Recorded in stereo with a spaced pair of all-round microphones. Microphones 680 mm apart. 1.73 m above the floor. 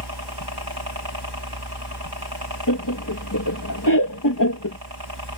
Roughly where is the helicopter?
Right.